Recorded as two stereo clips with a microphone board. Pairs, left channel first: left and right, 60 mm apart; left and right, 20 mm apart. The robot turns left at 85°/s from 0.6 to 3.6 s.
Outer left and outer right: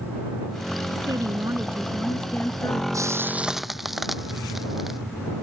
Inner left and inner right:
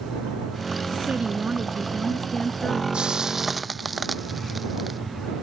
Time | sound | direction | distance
0.9 | a woman speaking | 85° right | ?
2.9 | frying | 60° right (ahead or behind) | ?